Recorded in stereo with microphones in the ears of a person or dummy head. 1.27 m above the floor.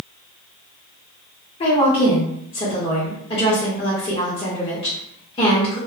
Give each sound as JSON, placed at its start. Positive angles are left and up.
{"t": 1.6, "sound": "a woman speaking", "side_deg": 30, "distance_m": 0.9}